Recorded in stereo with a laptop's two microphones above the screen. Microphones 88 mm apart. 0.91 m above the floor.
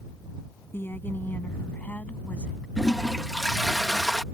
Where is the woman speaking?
25° left (ahead or behind); by 2.7 s 10° left (ahead or behind).